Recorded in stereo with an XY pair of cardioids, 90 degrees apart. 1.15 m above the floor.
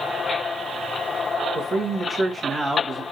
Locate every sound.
1.6 s a man speaking: 50° right, 1.5 m; by 3.0 s 20° right, 1.5 m